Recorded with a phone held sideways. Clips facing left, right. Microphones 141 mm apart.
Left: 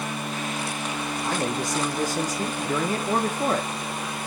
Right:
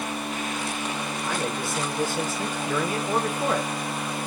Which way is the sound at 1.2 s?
35° left (ahead or behind).